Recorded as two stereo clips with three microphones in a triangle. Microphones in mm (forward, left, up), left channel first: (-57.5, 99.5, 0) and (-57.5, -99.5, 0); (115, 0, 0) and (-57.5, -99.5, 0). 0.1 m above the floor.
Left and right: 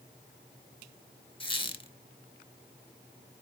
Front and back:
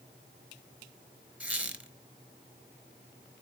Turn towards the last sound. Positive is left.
turn(degrees=130)